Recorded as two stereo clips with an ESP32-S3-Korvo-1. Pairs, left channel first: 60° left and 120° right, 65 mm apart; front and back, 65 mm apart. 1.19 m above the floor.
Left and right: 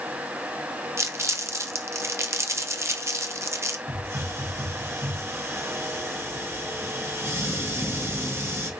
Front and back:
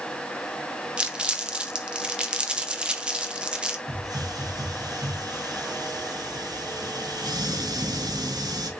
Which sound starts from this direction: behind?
A hiss, at 3.9 s.